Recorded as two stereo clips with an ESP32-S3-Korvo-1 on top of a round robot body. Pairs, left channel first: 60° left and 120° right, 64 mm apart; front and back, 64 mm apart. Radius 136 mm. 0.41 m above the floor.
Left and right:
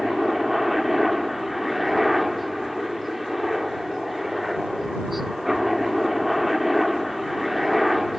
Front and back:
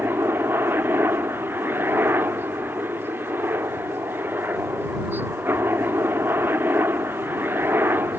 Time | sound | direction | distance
0.0 | a helicopter | 155° left | ?